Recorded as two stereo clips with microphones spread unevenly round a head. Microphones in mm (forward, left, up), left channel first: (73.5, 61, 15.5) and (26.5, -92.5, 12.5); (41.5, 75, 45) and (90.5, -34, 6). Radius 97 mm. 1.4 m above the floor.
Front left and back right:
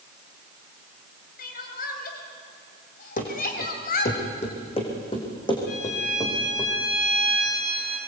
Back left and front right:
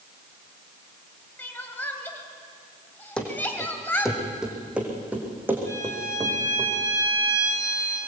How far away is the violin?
About 8 m.